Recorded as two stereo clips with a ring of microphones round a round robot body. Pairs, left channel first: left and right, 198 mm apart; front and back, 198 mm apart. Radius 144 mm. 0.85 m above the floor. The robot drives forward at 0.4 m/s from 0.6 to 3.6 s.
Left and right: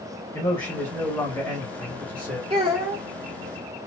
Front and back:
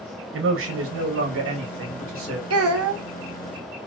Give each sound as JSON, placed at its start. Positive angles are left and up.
{"t": 0.3, "sound": "a man speaking", "azimuth_deg": 165, "distance_m": 0.9}
{"t": 2.5, "sound": "a child speaking", "azimuth_deg": -160, "distance_m": 0.6}